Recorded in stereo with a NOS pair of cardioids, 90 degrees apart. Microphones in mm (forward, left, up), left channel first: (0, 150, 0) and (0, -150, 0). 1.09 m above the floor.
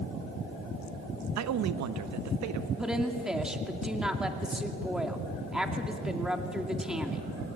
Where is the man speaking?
65° right, 0.9 m.